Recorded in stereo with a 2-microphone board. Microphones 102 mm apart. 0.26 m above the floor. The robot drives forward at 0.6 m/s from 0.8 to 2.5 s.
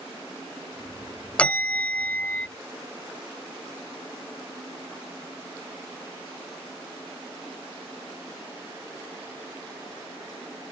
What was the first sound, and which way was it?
A bell, 10° left (ahead or behind).